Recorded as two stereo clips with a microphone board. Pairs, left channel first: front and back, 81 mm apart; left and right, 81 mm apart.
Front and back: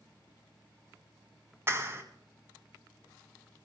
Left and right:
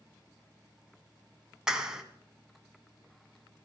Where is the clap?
160° right, 1.4 m.